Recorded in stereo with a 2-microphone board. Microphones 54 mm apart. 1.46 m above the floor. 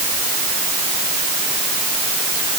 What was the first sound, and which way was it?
Only background noise.